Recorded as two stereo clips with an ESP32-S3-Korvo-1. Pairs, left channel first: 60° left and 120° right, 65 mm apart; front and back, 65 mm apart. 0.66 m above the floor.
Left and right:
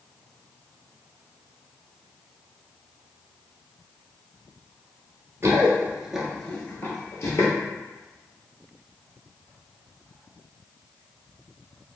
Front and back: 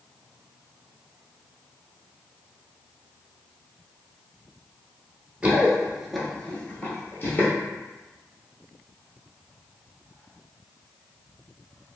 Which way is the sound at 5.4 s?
120° right.